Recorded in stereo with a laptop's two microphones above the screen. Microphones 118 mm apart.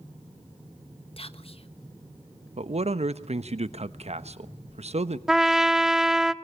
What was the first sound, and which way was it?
Whispering, 55° left (ahead or behind).